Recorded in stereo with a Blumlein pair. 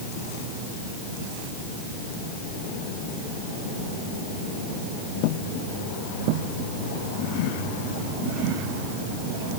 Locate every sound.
Only background noise.